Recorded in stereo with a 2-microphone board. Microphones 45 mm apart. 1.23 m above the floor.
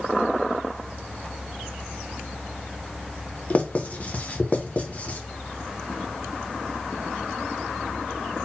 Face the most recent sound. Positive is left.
turn(degrees=30)  # may be behind; listen again after turning